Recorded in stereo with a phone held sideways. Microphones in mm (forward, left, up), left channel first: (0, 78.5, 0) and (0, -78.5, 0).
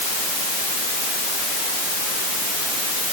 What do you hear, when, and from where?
Only background noise.